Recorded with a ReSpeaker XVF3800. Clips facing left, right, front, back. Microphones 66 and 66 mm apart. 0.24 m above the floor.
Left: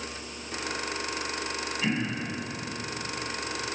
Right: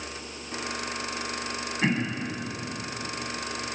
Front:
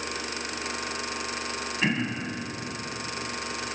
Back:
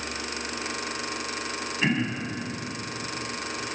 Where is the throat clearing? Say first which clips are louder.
Right 3 dB, back 2 dB; 90° right, 1.1 m.